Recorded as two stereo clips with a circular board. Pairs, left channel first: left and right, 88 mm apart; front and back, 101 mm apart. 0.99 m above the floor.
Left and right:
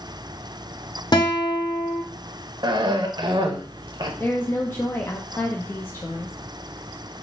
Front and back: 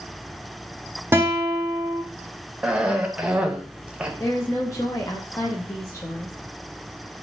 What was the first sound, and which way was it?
A guitar, 115° left.